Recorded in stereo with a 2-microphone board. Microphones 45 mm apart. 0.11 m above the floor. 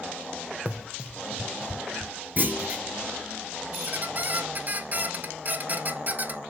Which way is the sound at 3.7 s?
40° right (ahead or behind).